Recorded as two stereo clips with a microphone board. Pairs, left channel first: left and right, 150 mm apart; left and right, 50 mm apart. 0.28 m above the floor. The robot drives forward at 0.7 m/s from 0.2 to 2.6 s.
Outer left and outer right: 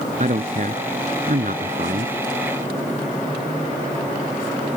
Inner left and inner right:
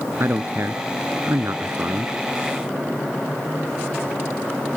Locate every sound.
0.2 s a man speaking: 55° right (ahead or behind); by 2.1 s 65° right (ahead or behind)